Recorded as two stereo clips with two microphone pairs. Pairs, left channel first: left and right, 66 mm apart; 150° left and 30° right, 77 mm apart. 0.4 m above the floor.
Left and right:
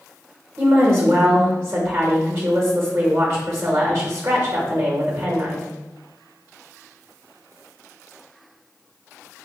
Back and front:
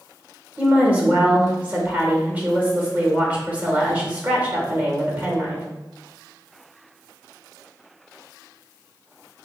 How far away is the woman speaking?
About 1.0 m.